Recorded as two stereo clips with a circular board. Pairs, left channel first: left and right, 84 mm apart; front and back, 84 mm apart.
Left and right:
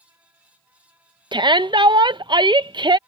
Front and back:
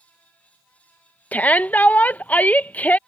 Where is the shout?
70° right.